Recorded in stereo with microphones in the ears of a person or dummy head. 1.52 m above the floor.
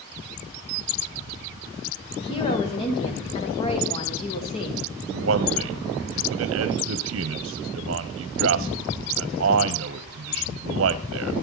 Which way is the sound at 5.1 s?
70° right (ahead or behind).